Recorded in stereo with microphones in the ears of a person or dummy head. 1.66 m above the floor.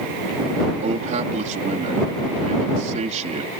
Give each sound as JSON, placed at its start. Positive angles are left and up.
{"t": 0.8, "sound": "a man speaking", "side_deg": -45}